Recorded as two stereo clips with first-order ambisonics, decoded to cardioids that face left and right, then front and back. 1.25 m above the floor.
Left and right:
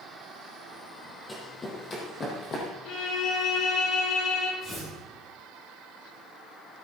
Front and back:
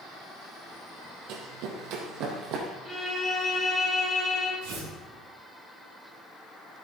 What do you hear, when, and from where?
1.3 s running footsteps: 165° left, 3 m; by 2.7 s 145° left, 3.5 m
2.9 s a violin: 95° left, 5 m
4.6 s tearing paper: 155° left, 6 m